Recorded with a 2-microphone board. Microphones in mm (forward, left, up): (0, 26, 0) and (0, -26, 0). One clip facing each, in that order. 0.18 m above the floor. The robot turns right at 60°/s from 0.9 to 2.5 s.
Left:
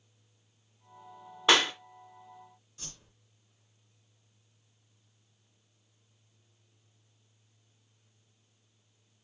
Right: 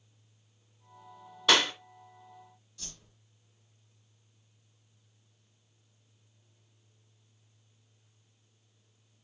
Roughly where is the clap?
Left.